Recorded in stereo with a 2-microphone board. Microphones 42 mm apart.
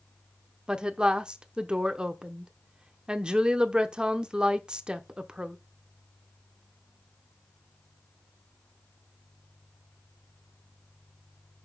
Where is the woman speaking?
20° right (ahead or behind), 0.8 m.